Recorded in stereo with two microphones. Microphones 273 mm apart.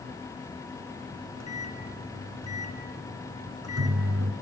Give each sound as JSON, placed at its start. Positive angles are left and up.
{"t": 1.1, "sound": "a microwave", "side_deg": -65, "distance_m": 3.0}